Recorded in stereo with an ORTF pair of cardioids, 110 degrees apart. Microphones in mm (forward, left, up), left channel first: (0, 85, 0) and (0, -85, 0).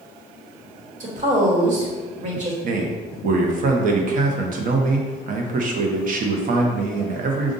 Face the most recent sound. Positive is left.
turn(degrees=-55)